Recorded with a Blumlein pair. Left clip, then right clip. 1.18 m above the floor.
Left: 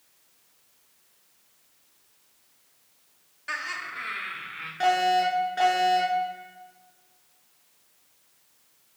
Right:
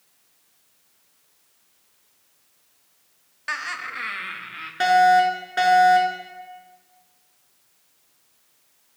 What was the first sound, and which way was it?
Laughter, 65° right.